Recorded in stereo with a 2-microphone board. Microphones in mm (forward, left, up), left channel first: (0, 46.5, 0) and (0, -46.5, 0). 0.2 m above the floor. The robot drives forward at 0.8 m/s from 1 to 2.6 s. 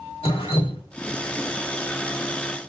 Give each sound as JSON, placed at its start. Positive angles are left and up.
{"t": 0.2, "sound": "dripping", "side_deg": 85, "distance_m": 5.0}